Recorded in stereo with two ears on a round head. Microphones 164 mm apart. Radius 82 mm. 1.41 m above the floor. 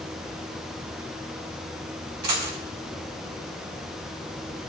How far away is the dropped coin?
About 4 m.